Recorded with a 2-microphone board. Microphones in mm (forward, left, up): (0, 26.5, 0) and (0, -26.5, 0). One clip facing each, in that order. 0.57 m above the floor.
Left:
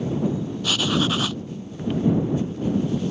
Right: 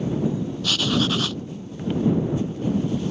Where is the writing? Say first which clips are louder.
Even; 15° left (ahead or behind).